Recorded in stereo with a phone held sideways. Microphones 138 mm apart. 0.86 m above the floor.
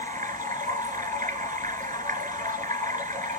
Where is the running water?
65° right (ahead or behind), 3.5 m.